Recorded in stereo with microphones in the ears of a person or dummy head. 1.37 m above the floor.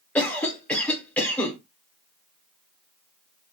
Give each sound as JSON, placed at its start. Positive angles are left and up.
{"t": 0.1, "sound": "a cough", "side_deg": 10, "distance_m": 1.2}